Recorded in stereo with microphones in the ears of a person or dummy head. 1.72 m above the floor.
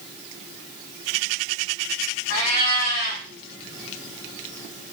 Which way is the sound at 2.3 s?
45° left (ahead or behind).